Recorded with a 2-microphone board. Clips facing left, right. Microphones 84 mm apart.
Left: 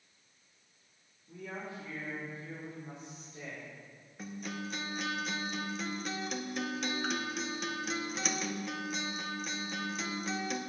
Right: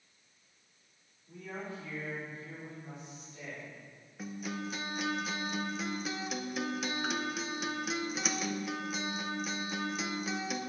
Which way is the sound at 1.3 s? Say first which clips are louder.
Even; 15° left (ahead or behind).